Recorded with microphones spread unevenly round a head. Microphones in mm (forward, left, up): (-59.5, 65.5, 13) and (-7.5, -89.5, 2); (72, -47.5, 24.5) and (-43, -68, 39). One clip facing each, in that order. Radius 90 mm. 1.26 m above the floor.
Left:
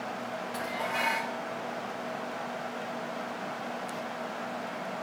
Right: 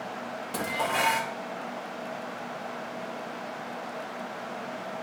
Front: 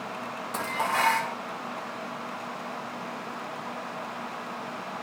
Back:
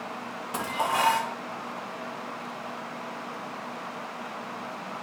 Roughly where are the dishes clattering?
Right.